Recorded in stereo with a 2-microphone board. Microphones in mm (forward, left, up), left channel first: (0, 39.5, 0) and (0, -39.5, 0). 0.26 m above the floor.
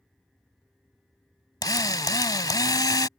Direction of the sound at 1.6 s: 55° left (ahead or behind).